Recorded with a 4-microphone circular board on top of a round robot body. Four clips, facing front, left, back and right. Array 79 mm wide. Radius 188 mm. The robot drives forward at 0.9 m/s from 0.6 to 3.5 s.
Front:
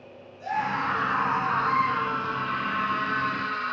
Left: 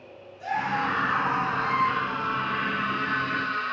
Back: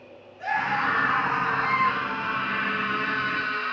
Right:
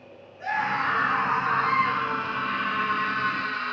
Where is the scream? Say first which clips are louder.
Right 1 dB, back 2 dB; 145° right, 6.5 m; by 3.7 s 155° right, 8.5 m.